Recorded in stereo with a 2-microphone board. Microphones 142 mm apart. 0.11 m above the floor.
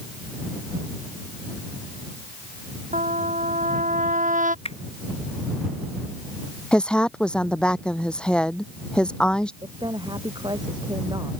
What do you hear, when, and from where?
2.9 s a trumpet: 75° right (ahead or behind)
4.7 s a finger snap: 45° left (ahead or behind)
6.7 s a woman speaking: 5° left (ahead or behind)
9.6 s a woman speaking: 35° right (ahead or behind)